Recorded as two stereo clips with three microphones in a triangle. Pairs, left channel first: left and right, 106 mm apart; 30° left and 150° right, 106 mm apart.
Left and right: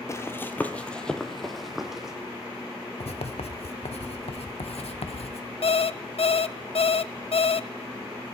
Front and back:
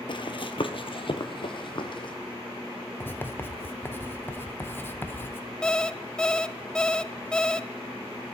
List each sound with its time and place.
0.1 s running footsteps: 40° left, 1.0 m; by 2.1 s 5° right, 2 m
3.0 s writing: 100° left, 1.1 m
5.6 s an alarm clock: 110° left, 0.5 m